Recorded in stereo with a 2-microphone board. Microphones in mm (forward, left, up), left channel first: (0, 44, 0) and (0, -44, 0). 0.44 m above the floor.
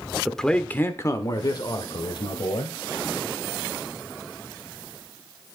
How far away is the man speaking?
About 1.1 m.